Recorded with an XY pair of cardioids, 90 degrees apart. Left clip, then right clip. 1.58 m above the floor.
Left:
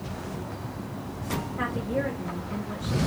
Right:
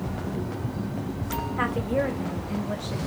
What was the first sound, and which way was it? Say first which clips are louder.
A woman speaking: right 4 dB; 50° right.